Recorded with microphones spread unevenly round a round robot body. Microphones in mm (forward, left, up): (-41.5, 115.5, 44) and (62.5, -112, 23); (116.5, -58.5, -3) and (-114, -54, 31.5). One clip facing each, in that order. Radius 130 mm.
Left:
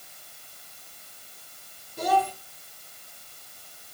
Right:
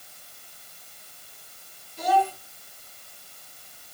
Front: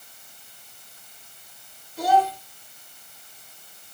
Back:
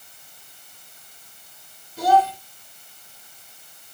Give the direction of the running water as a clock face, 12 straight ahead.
I don't hear running water.